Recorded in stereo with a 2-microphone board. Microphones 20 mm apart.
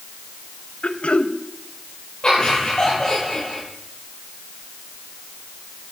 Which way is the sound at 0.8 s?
80° left.